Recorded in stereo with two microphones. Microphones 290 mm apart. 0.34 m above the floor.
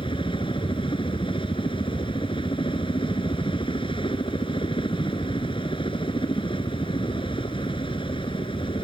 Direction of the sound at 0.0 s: 15° left (ahead or behind).